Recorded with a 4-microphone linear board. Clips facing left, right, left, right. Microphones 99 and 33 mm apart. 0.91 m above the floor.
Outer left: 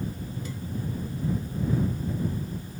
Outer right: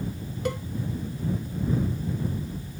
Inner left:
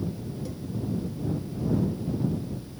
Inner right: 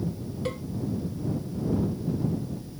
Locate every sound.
0.5 s a cowbell: 80° right